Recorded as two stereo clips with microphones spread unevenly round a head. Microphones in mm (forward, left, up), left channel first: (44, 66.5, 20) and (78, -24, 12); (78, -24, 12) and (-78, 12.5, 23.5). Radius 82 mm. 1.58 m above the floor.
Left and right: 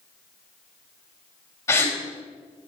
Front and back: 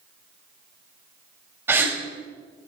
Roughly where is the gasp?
Left.